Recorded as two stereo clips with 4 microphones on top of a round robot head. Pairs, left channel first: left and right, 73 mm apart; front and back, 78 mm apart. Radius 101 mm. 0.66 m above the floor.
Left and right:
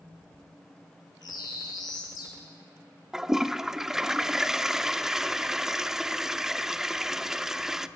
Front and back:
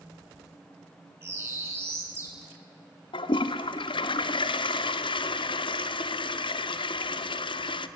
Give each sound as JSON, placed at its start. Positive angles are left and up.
{"t": 1.2, "sound": "a bird", "azimuth_deg": 125, "distance_m": 4.5}
{"t": 3.1, "sound": "a toilet flushing", "azimuth_deg": -5, "distance_m": 0.8}